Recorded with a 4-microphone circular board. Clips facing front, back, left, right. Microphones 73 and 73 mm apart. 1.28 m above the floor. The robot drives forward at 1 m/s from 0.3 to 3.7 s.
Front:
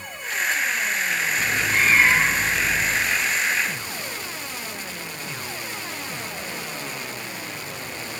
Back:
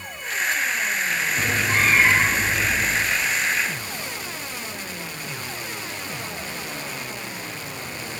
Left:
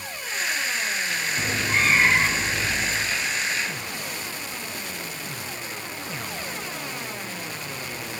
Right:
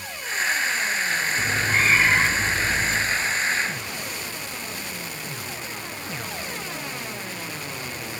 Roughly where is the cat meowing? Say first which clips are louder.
Back 1 dB, even; behind left.